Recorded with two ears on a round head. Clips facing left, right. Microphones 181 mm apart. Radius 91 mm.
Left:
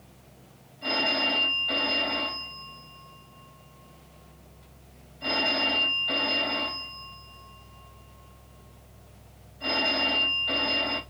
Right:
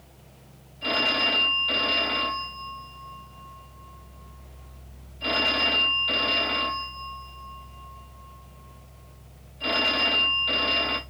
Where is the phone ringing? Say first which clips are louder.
Right 1 dB; 40° right (ahead or behind), 2 m.